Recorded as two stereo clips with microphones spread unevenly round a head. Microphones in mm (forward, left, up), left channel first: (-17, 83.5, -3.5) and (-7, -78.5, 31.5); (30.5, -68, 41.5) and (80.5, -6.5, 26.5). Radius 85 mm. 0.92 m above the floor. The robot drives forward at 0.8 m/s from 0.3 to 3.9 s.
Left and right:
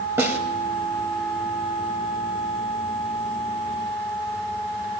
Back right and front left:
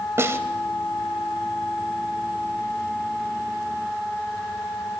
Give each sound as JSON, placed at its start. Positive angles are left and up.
{"t": 0.2, "sound": "a snare drum", "azimuth_deg": -10, "distance_m": 3.0}